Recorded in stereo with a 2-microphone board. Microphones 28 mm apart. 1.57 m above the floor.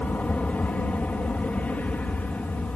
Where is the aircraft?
65° left (ahead or behind).